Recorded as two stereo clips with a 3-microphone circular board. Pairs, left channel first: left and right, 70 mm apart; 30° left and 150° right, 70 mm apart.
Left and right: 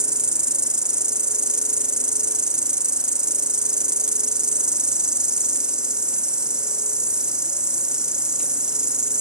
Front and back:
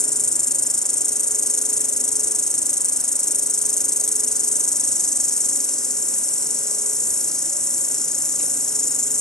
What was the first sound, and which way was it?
An insect, 35° right.